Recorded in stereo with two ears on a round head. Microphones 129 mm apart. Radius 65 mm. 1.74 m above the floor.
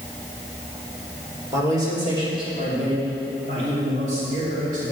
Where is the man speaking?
20° right (ahead or behind), 3 m; by 4.9 s 60° right (ahead or behind), 7.5 m.